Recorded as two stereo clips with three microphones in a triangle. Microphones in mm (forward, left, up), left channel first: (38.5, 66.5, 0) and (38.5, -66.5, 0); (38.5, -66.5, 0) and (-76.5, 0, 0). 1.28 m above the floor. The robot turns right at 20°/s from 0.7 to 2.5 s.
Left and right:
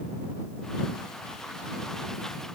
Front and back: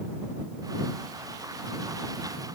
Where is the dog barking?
No dog barking in this recording.